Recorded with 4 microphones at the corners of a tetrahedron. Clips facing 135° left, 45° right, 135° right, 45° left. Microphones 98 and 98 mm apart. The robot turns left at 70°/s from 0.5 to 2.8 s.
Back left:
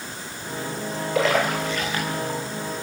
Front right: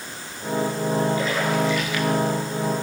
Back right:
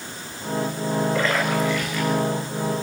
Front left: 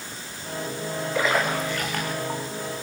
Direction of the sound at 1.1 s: 135° left.